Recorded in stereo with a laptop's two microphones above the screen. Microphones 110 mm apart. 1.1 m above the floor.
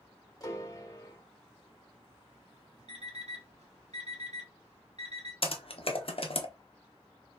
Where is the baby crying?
No baby crying in this recording.